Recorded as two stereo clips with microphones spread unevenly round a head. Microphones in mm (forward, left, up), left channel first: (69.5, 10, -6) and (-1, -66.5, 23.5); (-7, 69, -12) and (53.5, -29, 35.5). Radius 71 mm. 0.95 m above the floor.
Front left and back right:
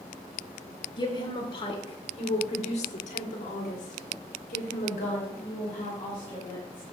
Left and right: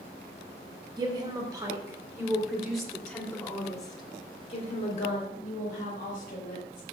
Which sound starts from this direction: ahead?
A woman speaking, at 1.0 s.